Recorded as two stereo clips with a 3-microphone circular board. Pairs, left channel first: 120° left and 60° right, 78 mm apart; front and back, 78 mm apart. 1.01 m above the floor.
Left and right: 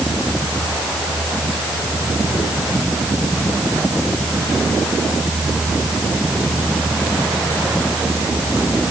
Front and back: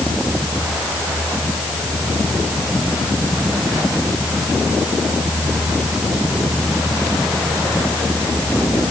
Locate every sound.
Only background noise.